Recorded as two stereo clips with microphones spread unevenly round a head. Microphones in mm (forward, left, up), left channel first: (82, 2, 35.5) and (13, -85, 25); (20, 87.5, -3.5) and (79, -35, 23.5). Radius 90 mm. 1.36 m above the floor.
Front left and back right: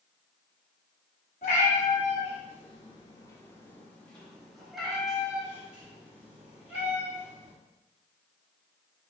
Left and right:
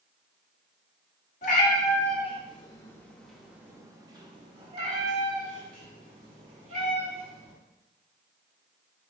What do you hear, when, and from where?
1.4 s a cat meowing: 90° left, 1.4 m; by 7.5 s 55° right, 3 m